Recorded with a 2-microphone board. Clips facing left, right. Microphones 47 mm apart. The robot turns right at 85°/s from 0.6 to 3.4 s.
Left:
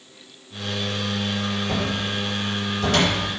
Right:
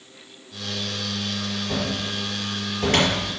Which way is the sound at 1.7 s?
55° left (ahead or behind).